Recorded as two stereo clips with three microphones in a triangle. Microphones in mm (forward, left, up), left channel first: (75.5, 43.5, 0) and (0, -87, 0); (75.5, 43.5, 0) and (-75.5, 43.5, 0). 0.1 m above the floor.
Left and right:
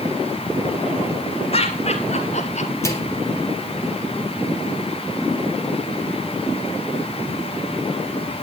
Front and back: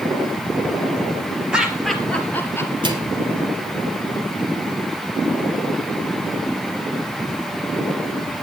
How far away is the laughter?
About 1.8 m.